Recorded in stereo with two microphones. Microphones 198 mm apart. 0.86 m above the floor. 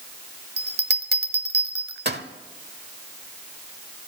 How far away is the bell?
About 1.0 m.